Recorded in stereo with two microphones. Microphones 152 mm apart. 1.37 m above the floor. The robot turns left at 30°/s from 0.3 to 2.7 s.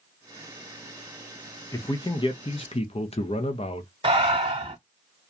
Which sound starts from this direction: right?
Breathing, at 4.0 s.